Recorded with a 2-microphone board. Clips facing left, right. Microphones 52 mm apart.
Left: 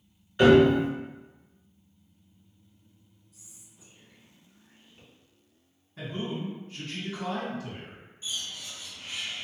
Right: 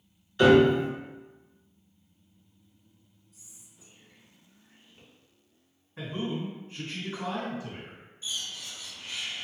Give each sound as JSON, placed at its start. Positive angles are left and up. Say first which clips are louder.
{"t": 0.4, "sound": "a piano", "louder": "left 1 dB", "side_deg": 25, "distance_m": 2.0}
{"t": 3.3, "sound": "whispering", "louder": "even", "side_deg": 0, "distance_m": 1.6}
{"t": 6.0, "sound": "a man speaking", "louder": "right 1 dB", "side_deg": -20, "distance_m": 1.7}
{"t": 8.2, "sound": "a bird", "louder": "even", "side_deg": 20, "distance_m": 1.6}